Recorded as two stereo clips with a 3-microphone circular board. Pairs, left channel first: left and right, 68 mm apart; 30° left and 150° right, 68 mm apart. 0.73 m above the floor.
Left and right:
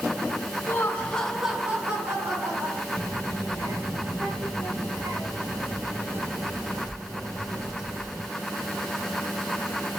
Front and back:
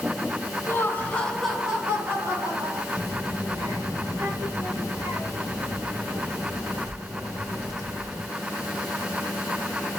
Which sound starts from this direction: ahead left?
Laughter, at 0.7 s.